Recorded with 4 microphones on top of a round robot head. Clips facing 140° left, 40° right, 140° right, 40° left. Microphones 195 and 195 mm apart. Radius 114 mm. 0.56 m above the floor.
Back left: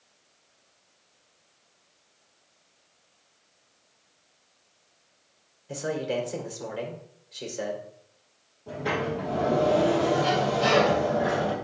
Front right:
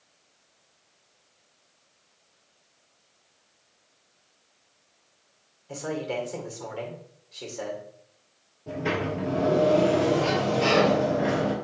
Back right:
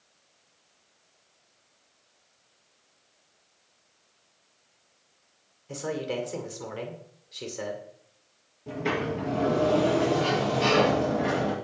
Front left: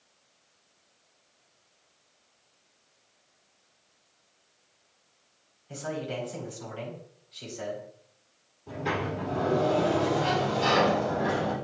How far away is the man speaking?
About 2.5 m.